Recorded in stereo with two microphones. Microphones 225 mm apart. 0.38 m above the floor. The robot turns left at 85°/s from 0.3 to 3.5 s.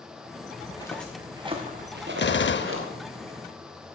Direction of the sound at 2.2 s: 110° left.